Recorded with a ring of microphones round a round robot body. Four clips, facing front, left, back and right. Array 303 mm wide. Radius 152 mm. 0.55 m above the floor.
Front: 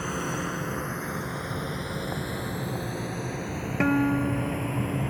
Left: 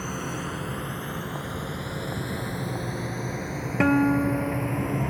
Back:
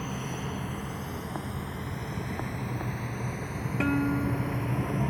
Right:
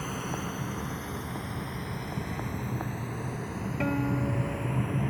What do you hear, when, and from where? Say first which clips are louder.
0.0 s a drone: left 2 dB, front 5 dB; 20° left; by 5.1 s 65° left
3.8 s a guitar: left 9 dB, front 4 dB; 70° left